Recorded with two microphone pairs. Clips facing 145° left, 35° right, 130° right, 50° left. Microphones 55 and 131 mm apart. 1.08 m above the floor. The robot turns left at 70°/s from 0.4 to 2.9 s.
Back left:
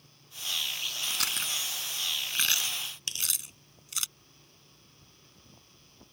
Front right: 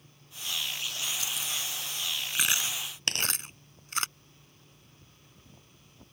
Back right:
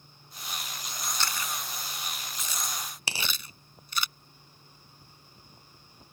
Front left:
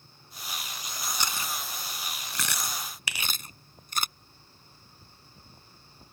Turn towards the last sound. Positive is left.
turn(degrees=-70)